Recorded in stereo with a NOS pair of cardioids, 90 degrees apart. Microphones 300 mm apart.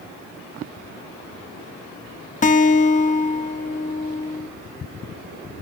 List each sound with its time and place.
2.4 s a guitar: 25° left, 1.2 m